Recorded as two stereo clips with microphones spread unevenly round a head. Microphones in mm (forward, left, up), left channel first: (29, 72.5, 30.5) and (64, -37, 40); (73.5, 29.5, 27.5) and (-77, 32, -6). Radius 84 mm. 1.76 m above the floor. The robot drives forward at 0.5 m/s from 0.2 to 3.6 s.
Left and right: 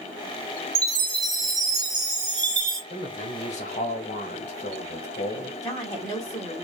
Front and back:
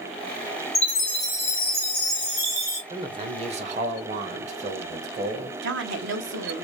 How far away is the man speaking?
About 0.8 m.